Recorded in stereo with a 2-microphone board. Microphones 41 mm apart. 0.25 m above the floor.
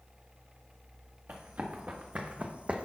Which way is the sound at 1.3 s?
50° right (ahead or behind).